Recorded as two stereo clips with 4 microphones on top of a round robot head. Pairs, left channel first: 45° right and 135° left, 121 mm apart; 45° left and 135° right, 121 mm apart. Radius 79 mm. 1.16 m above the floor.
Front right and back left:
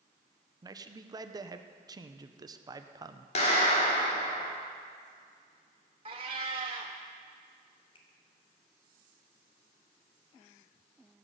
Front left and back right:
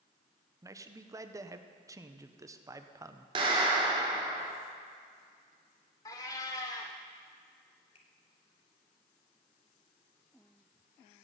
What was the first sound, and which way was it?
A man speaking, 175° left.